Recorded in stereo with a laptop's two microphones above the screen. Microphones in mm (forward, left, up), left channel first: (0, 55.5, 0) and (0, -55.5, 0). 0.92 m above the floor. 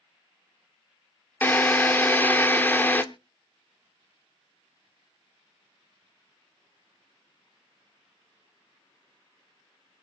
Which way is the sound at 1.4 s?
20° left (ahead or behind).